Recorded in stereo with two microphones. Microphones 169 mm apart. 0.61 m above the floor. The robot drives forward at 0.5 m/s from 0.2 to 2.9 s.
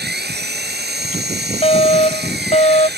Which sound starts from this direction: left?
A fire alarm, at 1.6 s.